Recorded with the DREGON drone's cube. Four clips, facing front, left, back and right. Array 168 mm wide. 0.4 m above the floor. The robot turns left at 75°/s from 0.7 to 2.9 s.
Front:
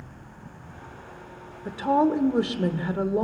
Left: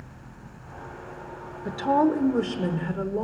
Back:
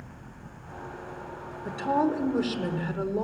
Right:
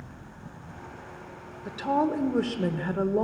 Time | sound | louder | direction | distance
1.6 | a woman speaking | left 4 dB, front 4 dB | 65° left | 1.3 m